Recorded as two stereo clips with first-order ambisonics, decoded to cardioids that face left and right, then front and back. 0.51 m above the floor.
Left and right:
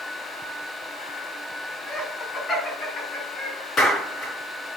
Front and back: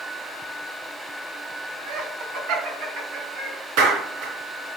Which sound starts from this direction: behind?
Laughter, at 1.9 s.